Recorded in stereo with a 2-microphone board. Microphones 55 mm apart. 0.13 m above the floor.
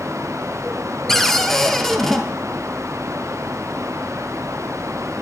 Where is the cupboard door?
5° left (ahead or behind), 1.0 m.